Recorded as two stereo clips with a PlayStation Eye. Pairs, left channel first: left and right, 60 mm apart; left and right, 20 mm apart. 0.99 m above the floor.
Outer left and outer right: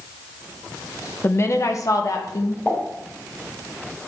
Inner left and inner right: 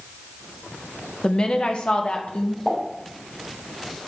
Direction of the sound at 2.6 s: 35° left (ahead or behind).